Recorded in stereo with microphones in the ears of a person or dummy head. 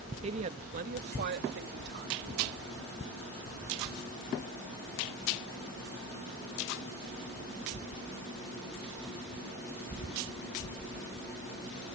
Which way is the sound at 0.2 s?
35° right (ahead or behind).